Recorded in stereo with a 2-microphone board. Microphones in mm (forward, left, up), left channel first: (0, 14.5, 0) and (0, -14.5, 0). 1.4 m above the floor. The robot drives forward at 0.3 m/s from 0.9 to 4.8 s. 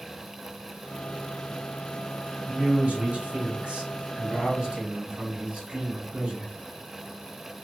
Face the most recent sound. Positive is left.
turn(degrees=-45)  # may be behind; listen again after turning